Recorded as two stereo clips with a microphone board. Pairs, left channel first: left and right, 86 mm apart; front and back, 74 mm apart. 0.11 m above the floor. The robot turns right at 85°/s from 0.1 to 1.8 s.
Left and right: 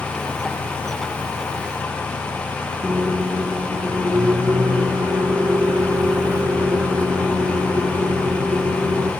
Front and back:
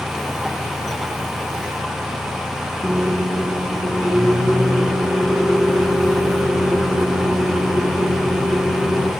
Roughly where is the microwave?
Right.